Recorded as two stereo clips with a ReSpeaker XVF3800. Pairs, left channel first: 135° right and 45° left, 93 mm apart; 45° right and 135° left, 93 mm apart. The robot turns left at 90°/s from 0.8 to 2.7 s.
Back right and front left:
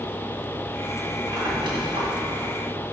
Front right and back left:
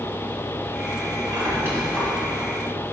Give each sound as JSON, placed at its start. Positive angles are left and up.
{"t": 1.3, "sound": "a squeak", "azimuth_deg": 105, "distance_m": 1.9}